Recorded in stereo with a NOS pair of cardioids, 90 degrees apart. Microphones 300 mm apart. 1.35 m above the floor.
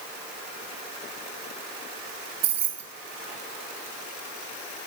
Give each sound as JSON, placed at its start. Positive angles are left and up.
{"t": 2.4, "sound": "keys jangling", "azimuth_deg": -60, "distance_m": 0.6}